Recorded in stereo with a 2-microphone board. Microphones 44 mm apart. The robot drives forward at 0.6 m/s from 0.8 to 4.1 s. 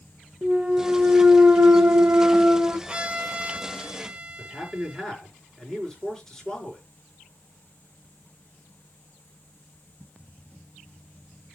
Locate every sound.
0.4 s a clunk: 30° right (ahead or behind), 1.1 m; by 2.8 s 45° right (ahead or behind), 0.7 m
2.9 s a violin: 20° right (ahead or behind), 1.3 m
4.4 s a man speaking: 10° left (ahead or behind), 5 m